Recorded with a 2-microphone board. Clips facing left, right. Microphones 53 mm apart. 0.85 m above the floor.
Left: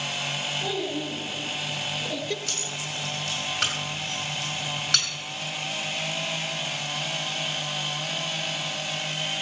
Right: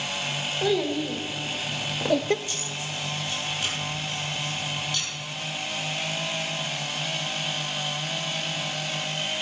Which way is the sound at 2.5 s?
70° left (ahead or behind).